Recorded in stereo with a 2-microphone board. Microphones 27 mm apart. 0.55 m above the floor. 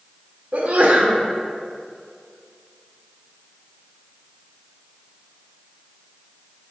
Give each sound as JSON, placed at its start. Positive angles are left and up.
{"t": 0.5, "sound": "a sneeze", "side_deg": -55, "distance_m": 1.0}